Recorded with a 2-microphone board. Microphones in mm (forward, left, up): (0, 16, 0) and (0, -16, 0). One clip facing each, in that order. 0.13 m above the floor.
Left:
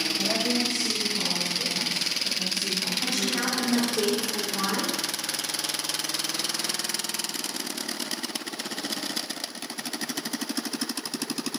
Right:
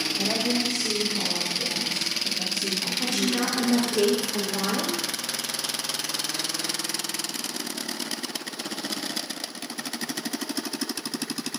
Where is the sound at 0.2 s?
40° right (ahead or behind), 4 m.